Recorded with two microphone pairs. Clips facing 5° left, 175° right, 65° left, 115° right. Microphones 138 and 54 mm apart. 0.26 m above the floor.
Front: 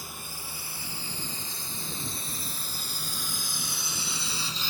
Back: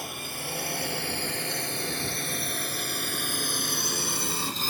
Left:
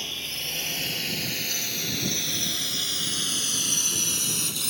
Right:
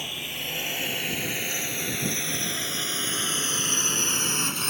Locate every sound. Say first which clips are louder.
0.0 s a drone: back 6 dB, right 1 dB; 170° left; by 4.7 s 150° right